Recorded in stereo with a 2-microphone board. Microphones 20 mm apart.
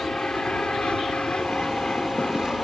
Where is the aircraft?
65° left (ahead or behind); by 2.6 s 60° left (ahead or behind).